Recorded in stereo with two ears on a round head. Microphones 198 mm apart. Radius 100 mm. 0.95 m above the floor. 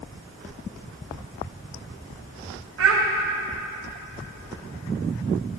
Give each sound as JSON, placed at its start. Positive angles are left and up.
{"t": 2.8, "sound": "a child speaking", "side_deg": -65, "distance_m": 0.9}